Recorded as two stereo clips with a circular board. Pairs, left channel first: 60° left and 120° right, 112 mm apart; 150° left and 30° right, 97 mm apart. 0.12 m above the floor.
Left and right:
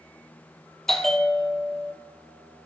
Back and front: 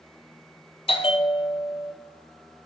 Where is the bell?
145° left, 0.6 m.